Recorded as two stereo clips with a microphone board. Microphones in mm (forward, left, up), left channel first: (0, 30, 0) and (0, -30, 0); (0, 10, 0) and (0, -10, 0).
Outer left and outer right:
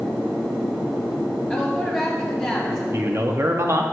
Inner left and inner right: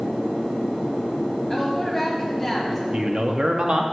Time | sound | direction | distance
1.5 | a woman speaking | centre (ahead or behind) | 2.0 m
2.9 | a man speaking | 45° right (ahead or behind) | 0.8 m